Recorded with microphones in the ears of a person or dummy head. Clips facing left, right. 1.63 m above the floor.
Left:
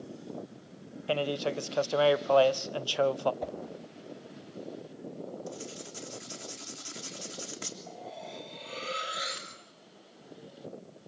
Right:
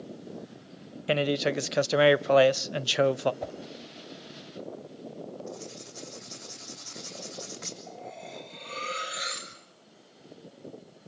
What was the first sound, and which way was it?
A man speaking, 25° right (ahead or behind).